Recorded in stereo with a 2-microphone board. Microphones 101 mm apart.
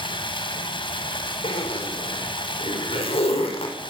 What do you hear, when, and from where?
0.0 s running water: 60° left (ahead or behind), 3.5 m
1.4 s a zipper: 80° left, 5.5 m